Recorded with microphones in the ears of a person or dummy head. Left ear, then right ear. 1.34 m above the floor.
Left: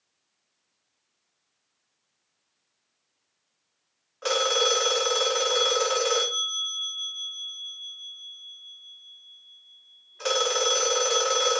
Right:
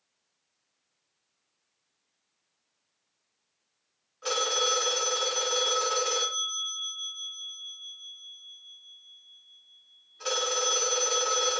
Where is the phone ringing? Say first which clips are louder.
Left 4 dB; 30° left (ahead or behind), 0.7 m.